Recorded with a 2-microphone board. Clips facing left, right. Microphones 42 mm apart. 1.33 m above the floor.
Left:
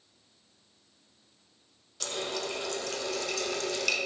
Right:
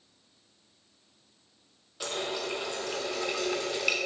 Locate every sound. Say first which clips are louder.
2.0 s a running tap: right 1 dB; 15° right (ahead or behind), 0.6 m